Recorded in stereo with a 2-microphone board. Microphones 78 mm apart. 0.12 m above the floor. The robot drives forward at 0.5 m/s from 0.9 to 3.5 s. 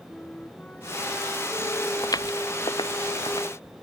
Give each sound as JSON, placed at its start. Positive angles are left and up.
{"t": 0.1, "sound": "a flute", "side_deg": 15}
{"t": 2.0, "sound": "footsteps", "side_deg": 50}